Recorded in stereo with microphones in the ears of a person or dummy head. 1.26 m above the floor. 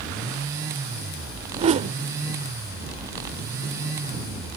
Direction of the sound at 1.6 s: 35° right (ahead or behind).